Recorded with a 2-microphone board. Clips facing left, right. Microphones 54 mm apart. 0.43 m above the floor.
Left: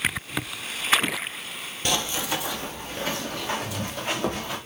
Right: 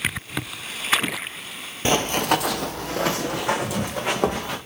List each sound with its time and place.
1.9 s running footsteps: 30° right (ahead or behind), 0.6 m; by 4.6 s 70° right (ahead or behind), 2.5 m